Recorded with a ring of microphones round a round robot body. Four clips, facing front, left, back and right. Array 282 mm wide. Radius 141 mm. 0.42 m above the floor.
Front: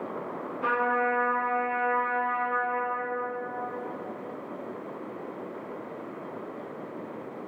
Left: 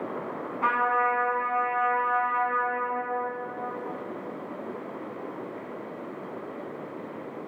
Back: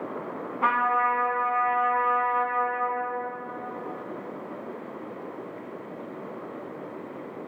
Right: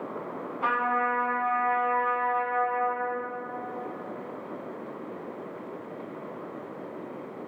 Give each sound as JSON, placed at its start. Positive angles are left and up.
{"t": 0.6, "sound": "a trumpet", "azimuth_deg": 165, "distance_m": 1.3}